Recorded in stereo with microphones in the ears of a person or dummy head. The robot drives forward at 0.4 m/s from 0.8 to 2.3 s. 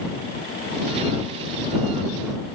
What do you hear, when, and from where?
Only background noise.